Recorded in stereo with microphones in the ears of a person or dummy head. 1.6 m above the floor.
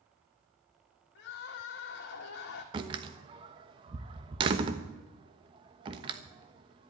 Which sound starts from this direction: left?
Crying, at 1.1 s.